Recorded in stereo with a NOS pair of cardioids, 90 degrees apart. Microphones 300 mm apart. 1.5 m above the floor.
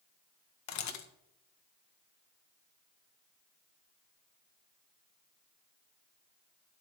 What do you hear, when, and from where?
0.7 s a camera shutter: 65° left, 1.1 m